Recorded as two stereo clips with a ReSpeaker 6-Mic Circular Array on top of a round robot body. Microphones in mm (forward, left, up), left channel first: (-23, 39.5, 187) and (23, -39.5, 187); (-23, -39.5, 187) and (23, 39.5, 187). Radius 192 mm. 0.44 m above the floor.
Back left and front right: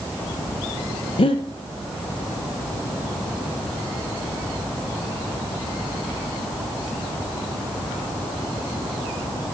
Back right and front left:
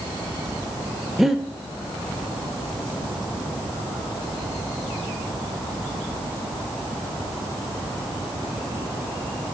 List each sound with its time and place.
1.2 s breathing: 145° left, 0.5 m